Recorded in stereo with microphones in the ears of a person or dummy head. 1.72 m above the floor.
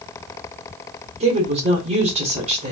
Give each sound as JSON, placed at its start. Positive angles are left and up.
{"t": 1.2, "sound": "a woman speaking", "side_deg": -40, "distance_m": 1.5}